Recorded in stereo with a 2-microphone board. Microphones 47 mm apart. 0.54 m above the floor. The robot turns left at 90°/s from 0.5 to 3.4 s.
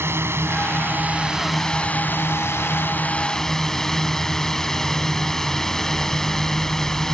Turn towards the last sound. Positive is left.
turn(degrees=10)